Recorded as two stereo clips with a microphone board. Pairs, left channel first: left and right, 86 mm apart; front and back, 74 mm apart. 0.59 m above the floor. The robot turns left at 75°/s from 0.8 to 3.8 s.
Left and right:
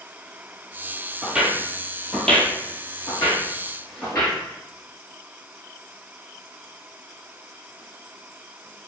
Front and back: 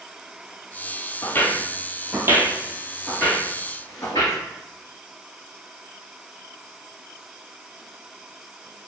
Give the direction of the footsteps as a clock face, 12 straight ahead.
12 o'clock.